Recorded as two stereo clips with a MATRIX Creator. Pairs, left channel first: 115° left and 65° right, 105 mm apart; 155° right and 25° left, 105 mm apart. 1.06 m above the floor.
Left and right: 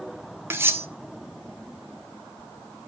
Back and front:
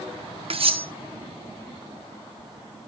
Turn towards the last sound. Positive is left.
turn(degrees=0)